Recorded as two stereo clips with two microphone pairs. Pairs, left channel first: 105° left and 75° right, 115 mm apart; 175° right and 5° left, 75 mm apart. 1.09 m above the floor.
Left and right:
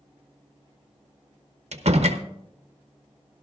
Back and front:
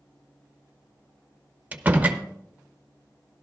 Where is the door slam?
65° right, 0.8 m.